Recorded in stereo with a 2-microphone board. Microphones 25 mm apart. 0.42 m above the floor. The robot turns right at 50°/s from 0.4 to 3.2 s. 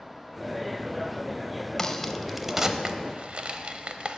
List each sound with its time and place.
1.8 s a crack: 15° left (ahead or behind), 0.8 m; by 4.2 s 50° right (ahead or behind), 0.8 m